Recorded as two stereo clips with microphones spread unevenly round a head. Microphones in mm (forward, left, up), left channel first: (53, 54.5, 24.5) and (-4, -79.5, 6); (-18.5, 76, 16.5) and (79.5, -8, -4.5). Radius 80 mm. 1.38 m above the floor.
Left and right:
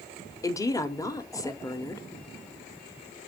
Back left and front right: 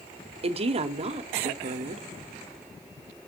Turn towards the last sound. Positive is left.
turn(degrees=0)